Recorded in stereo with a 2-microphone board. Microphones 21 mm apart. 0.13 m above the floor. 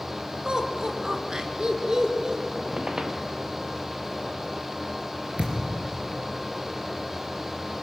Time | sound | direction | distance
0.5 | laughter | 30° right (ahead or behind) | 2 m
2.5 | a squeak | 35° right (ahead or behind) | 1.6 m
5.4 | a thud | 80° right | 4 m